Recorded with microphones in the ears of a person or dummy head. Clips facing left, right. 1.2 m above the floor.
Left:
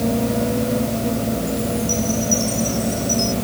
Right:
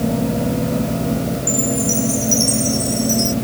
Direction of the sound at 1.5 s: 35° right (ahead or behind).